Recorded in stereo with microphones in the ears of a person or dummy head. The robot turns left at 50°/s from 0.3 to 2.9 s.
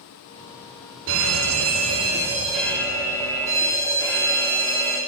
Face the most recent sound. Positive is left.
turn(degrees=-165)